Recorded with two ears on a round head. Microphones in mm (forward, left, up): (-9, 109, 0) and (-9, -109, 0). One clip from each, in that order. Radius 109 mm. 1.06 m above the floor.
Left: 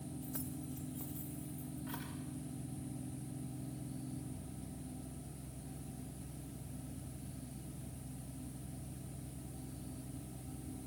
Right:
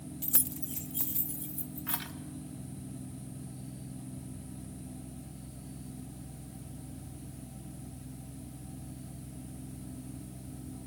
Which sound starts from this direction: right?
Keys jangling, at 0.2 s.